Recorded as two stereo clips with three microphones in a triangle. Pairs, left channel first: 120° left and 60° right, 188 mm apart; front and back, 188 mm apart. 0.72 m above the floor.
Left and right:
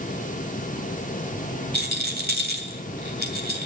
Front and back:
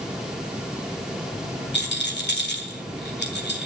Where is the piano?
No piano in this recording.